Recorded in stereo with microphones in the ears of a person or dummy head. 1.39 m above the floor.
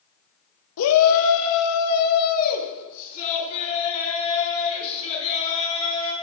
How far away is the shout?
About 0.8 m.